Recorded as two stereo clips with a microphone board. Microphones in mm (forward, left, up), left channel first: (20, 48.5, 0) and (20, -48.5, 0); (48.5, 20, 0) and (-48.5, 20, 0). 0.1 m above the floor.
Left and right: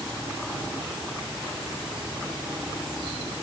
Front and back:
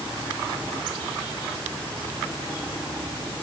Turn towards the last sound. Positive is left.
No sound to turn to.